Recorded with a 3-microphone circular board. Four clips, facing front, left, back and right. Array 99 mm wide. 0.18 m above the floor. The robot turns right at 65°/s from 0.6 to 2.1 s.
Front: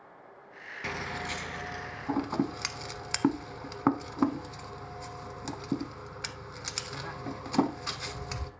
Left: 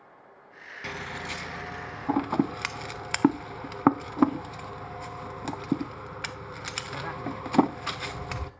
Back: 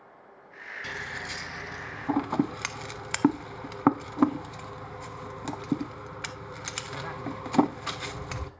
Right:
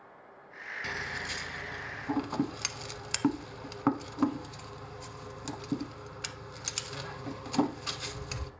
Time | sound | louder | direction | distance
0.8 | scissors | left 3 dB, front 3 dB | 30° left | 0.6 m